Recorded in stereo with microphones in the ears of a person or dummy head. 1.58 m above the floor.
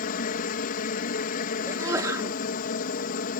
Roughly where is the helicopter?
Left.